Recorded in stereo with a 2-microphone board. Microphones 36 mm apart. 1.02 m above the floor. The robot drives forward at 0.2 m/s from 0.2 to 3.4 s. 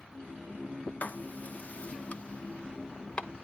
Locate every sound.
1.0 s writing: 45° left (ahead or behind), 0.6 m; by 3.5 s 25° left (ahead or behind), 1.0 m